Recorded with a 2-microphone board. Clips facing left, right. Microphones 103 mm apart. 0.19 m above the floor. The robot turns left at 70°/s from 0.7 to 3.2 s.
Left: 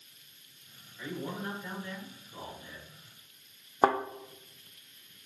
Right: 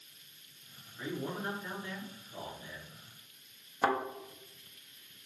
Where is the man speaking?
115° right, 2.0 m; by 2.9 s 110° left, 2.0 m.